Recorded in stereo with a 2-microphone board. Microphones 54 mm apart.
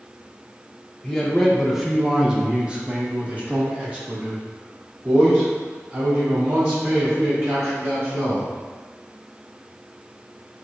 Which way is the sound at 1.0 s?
15° left (ahead or behind).